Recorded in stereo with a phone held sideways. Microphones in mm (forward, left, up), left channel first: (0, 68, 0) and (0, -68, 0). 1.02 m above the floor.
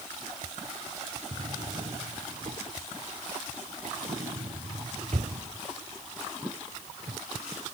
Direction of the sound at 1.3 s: 60° right (ahead or behind).